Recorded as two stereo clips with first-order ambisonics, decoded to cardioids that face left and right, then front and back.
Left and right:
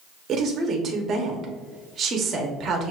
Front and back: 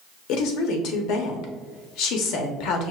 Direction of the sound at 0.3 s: 30° right.